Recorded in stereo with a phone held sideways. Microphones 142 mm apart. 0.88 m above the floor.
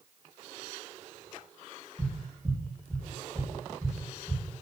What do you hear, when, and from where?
2.0 s tapping: 10° left (ahead or behind), 0.9 m